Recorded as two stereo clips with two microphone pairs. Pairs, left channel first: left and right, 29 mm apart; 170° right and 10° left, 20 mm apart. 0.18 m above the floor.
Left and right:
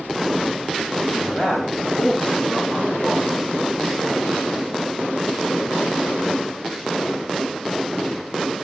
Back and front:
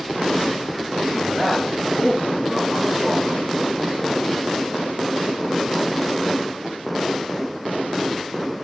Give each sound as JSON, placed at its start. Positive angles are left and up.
{"t": 1.1, "sound": "a man speaking", "azimuth_deg": 80, "distance_m": 5.5}